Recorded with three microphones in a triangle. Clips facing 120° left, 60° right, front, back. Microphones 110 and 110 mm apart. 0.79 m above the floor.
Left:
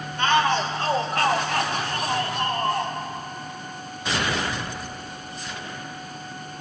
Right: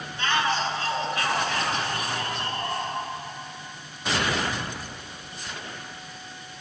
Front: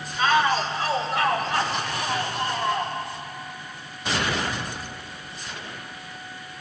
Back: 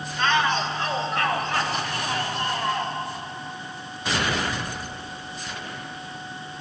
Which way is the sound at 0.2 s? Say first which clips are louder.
Left 5 dB, front 2 dB; 80° left.